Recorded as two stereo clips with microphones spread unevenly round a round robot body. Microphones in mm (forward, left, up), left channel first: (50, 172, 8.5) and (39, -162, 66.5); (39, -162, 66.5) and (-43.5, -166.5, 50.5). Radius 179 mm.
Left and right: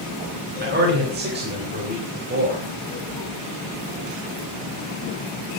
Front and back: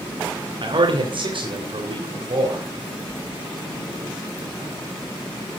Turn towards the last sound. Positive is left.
turn(degrees=-155)